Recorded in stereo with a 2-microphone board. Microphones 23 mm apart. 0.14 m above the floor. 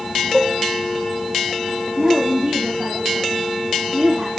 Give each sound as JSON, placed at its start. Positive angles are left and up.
{"t": 0.3, "sound": "dishes clattering", "side_deg": -5, "distance_m": 3.0}
{"t": 2.0, "sound": "a woman speaking", "side_deg": -45, "distance_m": 5.5}